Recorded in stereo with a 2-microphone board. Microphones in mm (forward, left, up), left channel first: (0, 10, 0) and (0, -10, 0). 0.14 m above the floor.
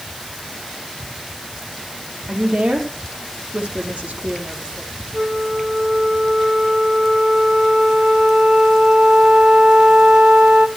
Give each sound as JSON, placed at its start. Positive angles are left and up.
{"t": 2.3, "sound": "a woman speaking", "side_deg": -70, "distance_m": 4.5}
{"t": 5.1, "sound": "a flute", "side_deg": -85, "distance_m": 2.5}